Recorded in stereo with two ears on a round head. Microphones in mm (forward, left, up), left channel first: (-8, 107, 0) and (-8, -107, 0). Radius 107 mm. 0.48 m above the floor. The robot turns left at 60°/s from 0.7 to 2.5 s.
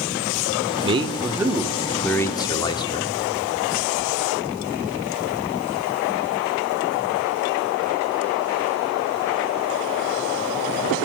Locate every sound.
0.8 s a man speaking: 20° right (ahead or behind), 0.8 m; by 3.1 s 20° left (ahead or behind), 0.8 m